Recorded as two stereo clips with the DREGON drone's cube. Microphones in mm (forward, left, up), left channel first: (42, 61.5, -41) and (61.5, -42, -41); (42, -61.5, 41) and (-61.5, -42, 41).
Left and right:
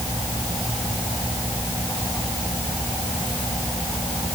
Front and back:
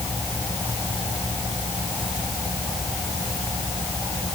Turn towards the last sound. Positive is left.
No sound to turn to.